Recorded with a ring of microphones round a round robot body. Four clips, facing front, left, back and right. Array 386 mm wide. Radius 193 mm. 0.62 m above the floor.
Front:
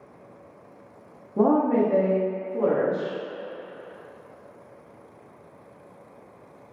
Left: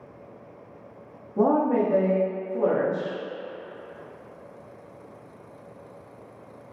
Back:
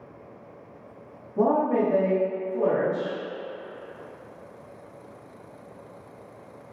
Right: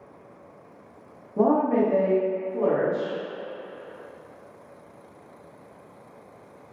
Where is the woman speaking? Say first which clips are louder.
Right 1 dB, front 2 dB; 10° left, 0.7 m.